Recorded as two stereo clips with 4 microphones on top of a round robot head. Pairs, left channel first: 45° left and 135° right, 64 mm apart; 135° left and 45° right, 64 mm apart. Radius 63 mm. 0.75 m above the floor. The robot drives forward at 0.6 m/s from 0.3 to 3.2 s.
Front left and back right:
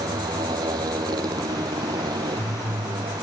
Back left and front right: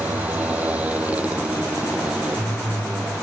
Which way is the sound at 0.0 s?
115° right.